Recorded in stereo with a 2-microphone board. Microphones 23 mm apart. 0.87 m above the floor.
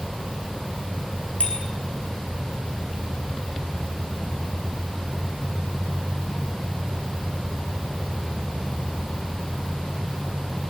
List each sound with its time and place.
1.4 s a bicycle bell: 80° left, 8.5 m